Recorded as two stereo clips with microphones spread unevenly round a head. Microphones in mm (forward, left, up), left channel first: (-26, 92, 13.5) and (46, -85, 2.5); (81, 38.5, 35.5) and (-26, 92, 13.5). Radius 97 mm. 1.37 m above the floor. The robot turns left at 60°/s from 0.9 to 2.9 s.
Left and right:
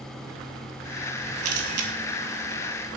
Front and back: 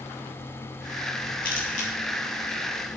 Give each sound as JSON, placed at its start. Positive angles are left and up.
{"t": 1.4, "sound": "a camera shutter", "azimuth_deg": -55, "distance_m": 1.8}